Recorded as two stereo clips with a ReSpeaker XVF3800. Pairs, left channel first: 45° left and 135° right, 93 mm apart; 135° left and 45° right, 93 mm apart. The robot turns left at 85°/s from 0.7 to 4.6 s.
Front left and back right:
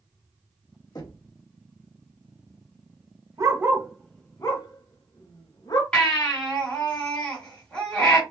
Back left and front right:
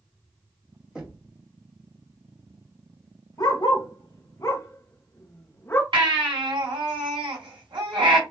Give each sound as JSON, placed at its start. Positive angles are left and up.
{"t": 0.9, "sound": "knocking", "azimuth_deg": 30, "distance_m": 1.2}
{"t": 3.4, "sound": "a dog barking", "azimuth_deg": 180, "distance_m": 0.9}
{"t": 5.9, "sound": "a baby crying", "azimuth_deg": -35, "distance_m": 2.0}